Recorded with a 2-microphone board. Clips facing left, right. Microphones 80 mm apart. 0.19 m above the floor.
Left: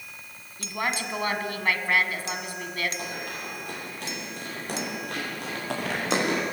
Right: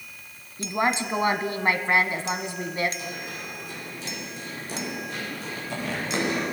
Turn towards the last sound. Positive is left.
turn(degrees=70)  # may be behind; listen again after turning